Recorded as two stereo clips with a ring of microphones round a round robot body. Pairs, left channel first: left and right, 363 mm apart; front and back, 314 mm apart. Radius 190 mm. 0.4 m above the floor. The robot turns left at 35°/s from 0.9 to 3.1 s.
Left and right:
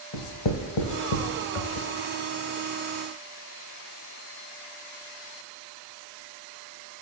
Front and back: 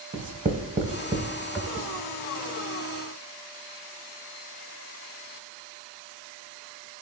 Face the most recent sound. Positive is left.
turn(degrees=35)